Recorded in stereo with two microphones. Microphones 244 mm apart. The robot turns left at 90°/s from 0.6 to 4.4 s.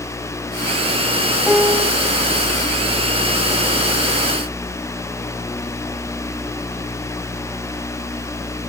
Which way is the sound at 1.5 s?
5° left.